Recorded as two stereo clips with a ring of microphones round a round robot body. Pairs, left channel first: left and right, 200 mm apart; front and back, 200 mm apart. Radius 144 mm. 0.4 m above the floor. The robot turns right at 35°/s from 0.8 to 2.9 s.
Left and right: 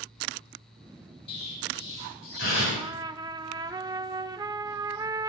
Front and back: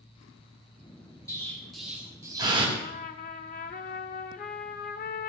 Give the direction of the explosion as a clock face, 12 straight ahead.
10 o'clock.